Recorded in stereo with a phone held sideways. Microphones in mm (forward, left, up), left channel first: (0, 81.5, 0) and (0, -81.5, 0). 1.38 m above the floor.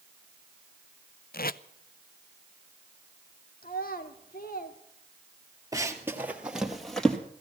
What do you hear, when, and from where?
1.3 s tape being pulled: 65° left (ahead or behind), 0.5 m
3.6 s a child speaking: 65° left (ahead or behind), 1.8 m
5.7 s running footsteps: 20° right (ahead or behind), 1.9 m; by 7.2 s 5° left (ahead or behind), 2.5 m